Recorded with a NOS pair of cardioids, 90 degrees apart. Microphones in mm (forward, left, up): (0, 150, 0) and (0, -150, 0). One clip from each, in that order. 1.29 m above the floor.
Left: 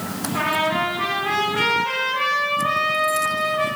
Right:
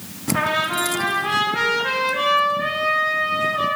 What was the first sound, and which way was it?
A trumpet, 35° right.